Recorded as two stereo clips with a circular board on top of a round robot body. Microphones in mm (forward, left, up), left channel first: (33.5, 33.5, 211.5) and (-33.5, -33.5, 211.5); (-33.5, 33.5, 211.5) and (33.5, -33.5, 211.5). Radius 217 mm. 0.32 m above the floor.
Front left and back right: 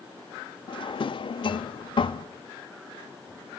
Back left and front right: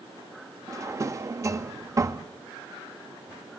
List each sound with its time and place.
0.7 s a drawer: 10° left, 0.9 m